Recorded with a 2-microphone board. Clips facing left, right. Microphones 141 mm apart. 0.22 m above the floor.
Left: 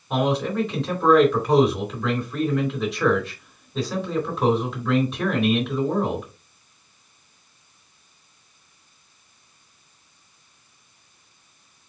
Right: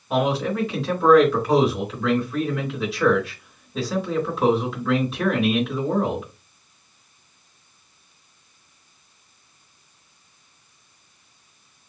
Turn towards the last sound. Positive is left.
turn(degrees=-5)  # may be behind; listen again after turning